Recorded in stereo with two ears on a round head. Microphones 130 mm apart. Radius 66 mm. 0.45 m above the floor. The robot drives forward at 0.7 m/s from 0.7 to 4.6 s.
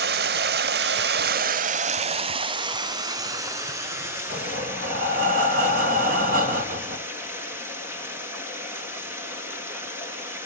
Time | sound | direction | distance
0.0 | running water | 70° right (ahead or behind) | 0.8 m
4.3 | breathing | 70° right (ahead or behind) | 3 m